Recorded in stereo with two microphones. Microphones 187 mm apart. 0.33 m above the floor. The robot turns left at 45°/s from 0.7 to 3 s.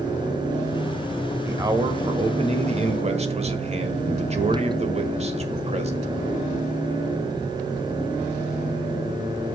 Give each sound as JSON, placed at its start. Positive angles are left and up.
{"t": 1.4, "sound": "a man speaking", "azimuth_deg": -25, "distance_m": 1.5}